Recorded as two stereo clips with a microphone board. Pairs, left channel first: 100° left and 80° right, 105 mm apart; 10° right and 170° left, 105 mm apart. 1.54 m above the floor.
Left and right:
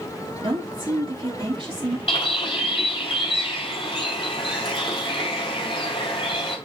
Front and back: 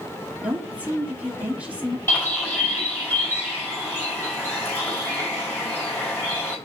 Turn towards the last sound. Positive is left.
turn(degrees=60)